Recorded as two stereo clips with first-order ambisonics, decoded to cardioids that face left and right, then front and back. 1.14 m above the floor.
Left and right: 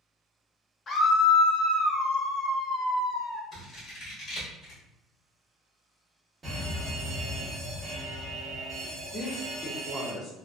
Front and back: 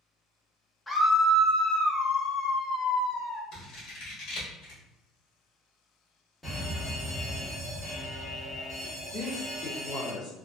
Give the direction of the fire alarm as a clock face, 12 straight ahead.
2 o'clock.